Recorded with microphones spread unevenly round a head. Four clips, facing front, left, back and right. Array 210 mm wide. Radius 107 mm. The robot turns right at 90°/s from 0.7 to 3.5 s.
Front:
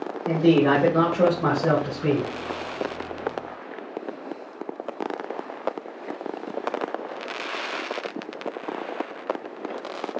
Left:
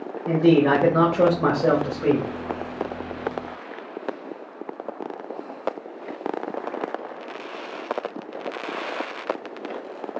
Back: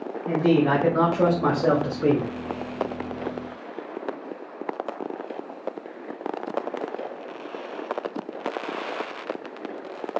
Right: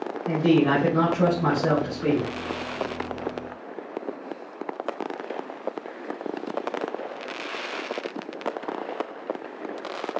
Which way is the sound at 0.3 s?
50° left.